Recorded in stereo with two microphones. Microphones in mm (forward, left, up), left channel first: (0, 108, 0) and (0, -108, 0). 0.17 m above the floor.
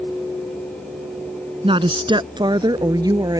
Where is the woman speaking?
25° right (ahead or behind); by 3.4 s 20° right (ahead or behind).